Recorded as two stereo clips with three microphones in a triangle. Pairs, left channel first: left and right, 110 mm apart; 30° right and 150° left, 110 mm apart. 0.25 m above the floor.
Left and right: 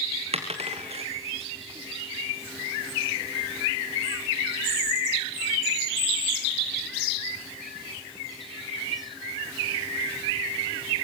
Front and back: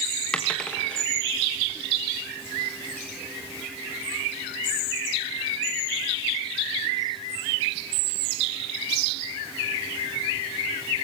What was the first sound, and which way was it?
A dropped coin, 110° right.